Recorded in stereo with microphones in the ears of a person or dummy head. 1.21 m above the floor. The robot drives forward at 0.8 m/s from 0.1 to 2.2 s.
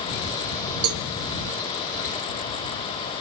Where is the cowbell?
75° right (ahead or behind), 1.4 m; by 1.1 s 70° right (ahead or behind), 1.4 m.